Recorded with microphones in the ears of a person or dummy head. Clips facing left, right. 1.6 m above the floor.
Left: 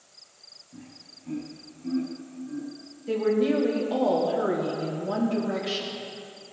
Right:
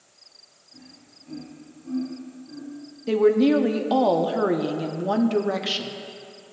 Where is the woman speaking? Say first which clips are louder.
Right 6 dB; 80° right, 0.7 m.